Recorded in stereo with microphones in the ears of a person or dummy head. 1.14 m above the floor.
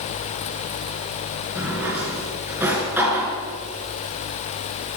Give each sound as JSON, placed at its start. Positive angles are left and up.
{"t": 1.6, "sound": "a drawer", "side_deg": -15, "distance_m": 3.0}